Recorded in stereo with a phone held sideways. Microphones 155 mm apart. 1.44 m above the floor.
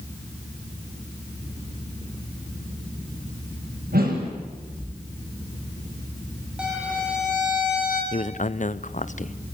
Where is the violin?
5° right (ahead or behind), 7 m.